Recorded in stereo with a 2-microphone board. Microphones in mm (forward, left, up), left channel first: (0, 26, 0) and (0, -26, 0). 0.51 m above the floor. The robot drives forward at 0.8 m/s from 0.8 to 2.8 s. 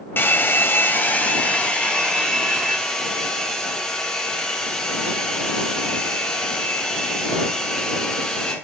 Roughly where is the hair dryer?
Left.